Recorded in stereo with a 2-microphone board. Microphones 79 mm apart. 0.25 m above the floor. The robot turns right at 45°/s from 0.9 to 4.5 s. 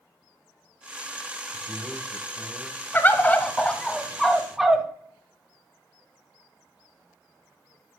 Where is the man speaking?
40° right, 2 m; by 2.8 s 20° left, 2 m.